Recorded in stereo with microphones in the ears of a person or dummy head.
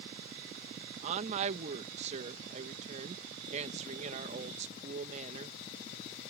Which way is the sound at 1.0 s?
40° right (ahead or behind).